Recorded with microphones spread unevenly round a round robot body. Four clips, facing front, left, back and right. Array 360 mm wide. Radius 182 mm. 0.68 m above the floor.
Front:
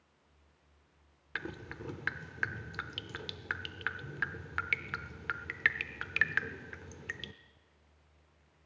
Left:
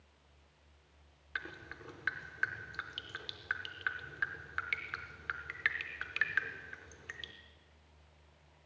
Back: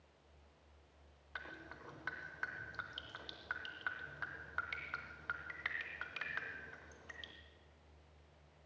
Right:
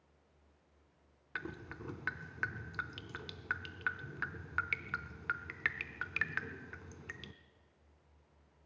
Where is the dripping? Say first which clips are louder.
Even, front 8 dB; 30° right, 0.6 m.